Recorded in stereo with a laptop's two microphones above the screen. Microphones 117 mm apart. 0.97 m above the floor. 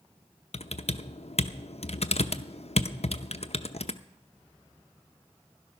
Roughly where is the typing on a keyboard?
Left.